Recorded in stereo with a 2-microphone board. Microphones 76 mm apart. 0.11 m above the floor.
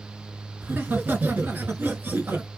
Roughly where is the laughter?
Right.